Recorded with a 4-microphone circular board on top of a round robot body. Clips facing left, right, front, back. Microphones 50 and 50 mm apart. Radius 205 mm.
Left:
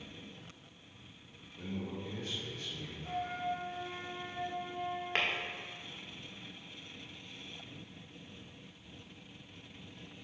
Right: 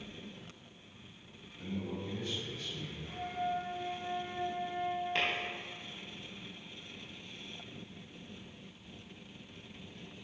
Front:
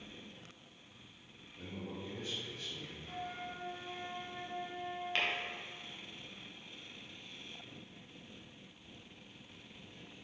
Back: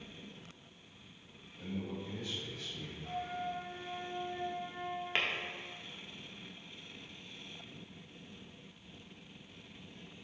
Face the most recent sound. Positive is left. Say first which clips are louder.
# left 1 dB, back 1 dB
turn(degrees=110)